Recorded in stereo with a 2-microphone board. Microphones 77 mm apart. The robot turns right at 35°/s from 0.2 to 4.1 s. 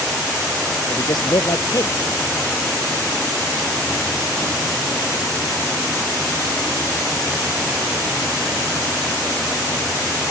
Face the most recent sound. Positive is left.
turn(degrees=-150)